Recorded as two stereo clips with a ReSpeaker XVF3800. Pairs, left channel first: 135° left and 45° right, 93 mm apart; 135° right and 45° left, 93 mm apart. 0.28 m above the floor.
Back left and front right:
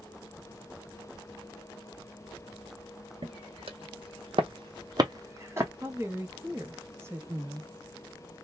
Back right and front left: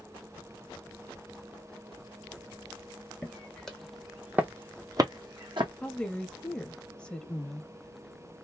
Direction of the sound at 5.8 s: 65° right.